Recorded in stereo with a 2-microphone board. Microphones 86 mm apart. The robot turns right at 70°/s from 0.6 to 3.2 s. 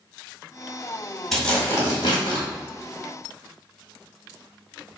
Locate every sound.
1.3 s tearing paper: 5° left, 1.9 m; by 2.5 s 85° left, 1.9 m